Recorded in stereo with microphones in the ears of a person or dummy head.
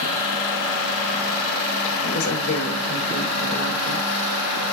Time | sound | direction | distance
2.0 | a woman speaking | 90° left | 6.5 m